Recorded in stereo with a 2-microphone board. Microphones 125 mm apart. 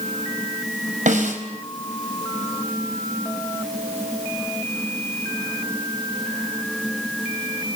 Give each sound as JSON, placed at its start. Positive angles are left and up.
{"t": 1.1, "sound": "a snare drum", "side_deg": -80, "distance_m": 4.5}